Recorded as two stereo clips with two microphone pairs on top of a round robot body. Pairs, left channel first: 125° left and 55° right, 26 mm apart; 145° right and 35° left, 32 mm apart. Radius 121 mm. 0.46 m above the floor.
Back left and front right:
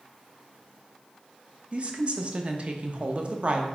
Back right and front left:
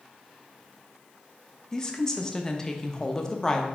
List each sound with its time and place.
1.7 s a woman speaking: 100° right, 0.8 m